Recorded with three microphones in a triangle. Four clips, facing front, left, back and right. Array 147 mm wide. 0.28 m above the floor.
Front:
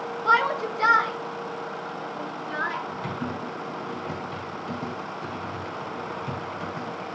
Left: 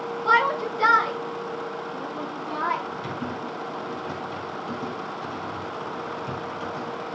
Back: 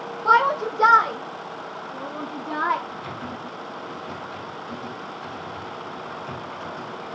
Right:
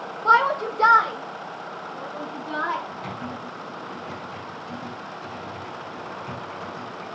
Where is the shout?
115° right, 1.6 m; by 2.8 s 175° right, 3 m.